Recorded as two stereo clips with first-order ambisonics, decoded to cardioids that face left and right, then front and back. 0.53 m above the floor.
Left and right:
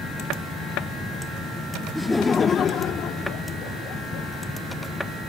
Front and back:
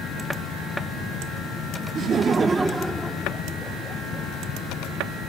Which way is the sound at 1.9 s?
175° right.